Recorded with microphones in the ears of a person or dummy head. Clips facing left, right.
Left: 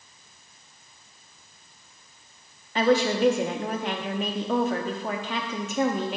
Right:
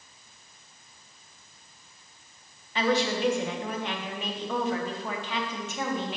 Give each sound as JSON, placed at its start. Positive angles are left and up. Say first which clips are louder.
{"t": 2.8, "sound": "a woman speaking", "louder": "left 5 dB", "side_deg": 40, "distance_m": 0.7}